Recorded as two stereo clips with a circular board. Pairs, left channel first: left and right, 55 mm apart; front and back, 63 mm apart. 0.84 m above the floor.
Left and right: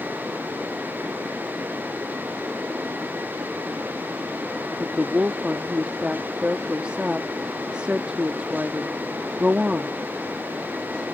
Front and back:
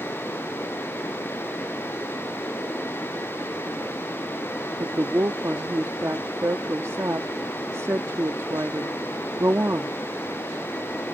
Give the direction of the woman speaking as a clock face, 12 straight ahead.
5 o'clock.